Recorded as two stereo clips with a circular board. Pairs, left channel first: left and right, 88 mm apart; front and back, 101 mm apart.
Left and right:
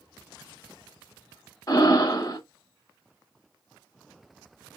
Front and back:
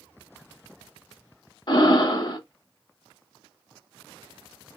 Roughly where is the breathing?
Ahead left.